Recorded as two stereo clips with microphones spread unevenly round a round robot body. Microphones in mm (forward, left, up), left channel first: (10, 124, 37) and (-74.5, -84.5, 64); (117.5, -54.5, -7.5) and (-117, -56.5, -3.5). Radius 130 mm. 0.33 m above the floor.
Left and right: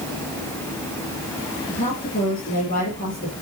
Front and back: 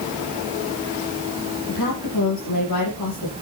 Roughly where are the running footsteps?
No running footsteps in this recording.